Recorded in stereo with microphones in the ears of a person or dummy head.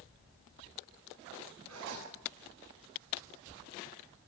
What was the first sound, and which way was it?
A zipper, 85° right.